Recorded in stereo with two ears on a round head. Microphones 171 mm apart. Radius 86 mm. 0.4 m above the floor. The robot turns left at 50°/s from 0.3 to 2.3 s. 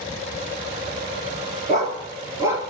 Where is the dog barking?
45° right (ahead or behind), 3 m; by 2.6 s 15° right (ahead or behind), 3 m.